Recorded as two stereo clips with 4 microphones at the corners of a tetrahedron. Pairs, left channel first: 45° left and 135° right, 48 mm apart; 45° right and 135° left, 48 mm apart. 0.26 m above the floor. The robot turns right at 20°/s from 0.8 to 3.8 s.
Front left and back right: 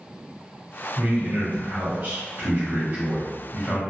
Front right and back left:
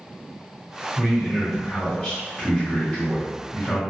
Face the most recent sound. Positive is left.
turn(degrees=-105)